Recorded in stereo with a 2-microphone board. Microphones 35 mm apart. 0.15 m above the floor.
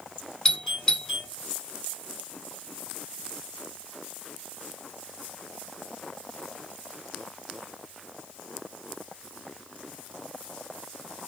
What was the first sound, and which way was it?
A doorbell, 20° left (ahead or behind).